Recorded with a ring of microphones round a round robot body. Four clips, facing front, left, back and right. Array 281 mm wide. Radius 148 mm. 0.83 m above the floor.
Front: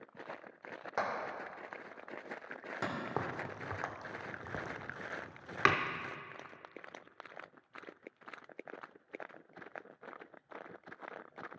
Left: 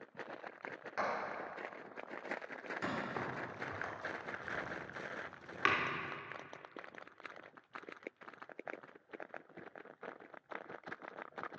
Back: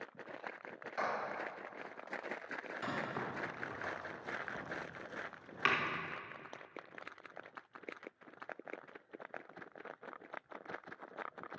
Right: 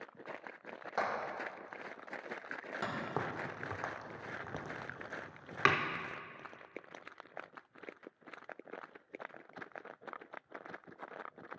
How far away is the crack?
About 0.6 m.